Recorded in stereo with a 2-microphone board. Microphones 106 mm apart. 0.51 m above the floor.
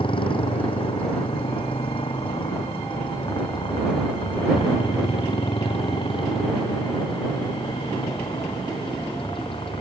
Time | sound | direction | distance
0.0 | a motorcycle | 55° left (ahead or behind) | ?